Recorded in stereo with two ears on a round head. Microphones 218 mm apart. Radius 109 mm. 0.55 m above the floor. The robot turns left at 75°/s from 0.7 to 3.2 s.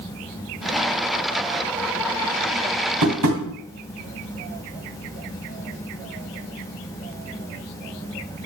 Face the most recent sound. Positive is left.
turn(degrees=-85)